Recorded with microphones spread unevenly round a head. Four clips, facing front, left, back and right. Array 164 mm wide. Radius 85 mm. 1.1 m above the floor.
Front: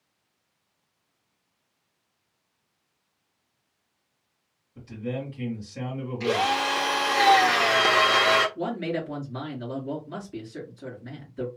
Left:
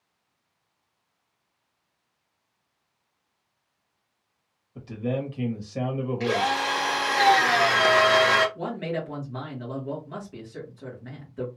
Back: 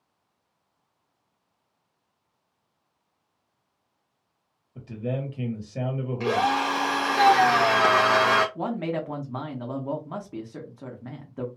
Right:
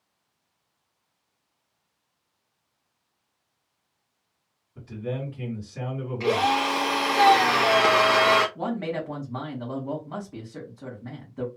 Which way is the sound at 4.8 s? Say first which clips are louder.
Left 3 dB, back 2 dB; 140° left.